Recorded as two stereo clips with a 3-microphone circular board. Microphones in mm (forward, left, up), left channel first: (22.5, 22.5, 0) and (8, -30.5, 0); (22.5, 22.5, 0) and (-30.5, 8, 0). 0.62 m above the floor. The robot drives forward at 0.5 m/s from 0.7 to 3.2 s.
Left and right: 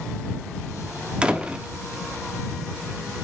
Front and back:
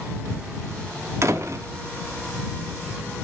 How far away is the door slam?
About 0.8 m.